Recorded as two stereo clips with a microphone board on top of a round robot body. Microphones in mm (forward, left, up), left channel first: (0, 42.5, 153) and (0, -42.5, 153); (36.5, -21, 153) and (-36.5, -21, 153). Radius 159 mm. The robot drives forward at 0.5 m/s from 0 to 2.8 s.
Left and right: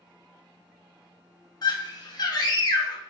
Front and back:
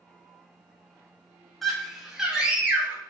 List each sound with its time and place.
1.6 s a scream: 85° left, 1.5 m; by 3.0 s 115° left, 1.6 m